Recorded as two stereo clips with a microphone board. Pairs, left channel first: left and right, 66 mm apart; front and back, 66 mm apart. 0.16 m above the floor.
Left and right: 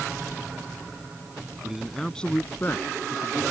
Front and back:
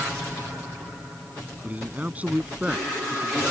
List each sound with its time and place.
1.6 s a man speaking: 155° right; by 3.4 s 100° left